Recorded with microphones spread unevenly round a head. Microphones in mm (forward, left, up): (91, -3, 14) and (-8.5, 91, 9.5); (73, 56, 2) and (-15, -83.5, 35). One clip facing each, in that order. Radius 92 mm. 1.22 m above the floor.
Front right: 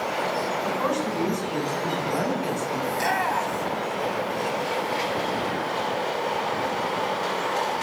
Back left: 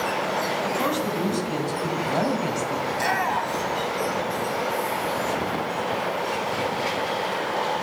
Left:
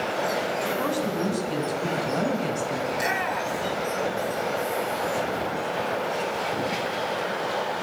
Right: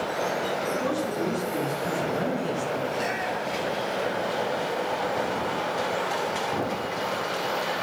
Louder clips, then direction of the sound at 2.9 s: Front right 1 dB, left 1 dB; 45° left.